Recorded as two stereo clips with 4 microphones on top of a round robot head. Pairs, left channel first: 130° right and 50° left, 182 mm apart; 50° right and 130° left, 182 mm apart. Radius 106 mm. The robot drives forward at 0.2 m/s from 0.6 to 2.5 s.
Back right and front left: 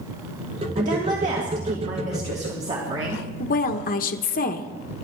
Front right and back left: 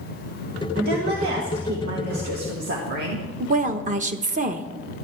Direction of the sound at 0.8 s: 95° left.